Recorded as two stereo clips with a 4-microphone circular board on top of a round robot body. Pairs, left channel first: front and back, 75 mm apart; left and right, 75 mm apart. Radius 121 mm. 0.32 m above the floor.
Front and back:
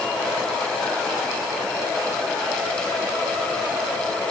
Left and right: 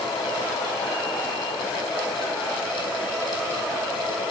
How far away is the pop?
I don't hear a pop.